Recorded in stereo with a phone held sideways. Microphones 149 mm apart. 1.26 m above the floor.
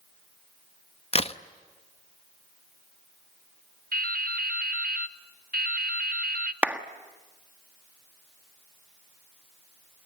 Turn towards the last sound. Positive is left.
turn(degrees=-10)  # may be behind; listen again after turning